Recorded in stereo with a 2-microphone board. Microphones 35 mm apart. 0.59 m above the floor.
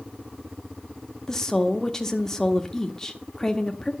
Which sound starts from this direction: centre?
A woman speaking, at 1.3 s.